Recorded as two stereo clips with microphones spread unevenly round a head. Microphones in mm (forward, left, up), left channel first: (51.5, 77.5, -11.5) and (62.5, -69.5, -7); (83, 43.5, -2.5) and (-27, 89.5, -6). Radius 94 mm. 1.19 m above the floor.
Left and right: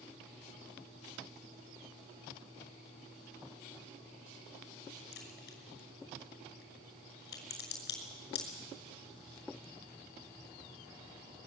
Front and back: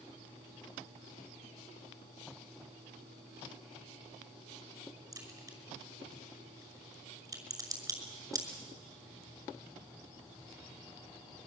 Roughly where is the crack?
Left.